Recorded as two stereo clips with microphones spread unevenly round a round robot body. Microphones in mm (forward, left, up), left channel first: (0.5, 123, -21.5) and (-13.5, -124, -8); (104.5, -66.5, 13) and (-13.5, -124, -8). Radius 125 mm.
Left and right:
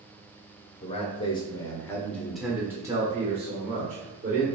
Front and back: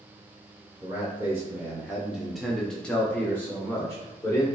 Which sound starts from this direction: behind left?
A man speaking, at 0.8 s.